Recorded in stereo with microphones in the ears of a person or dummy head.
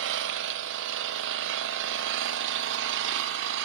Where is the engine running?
60° right (ahead or behind), 0.7 m.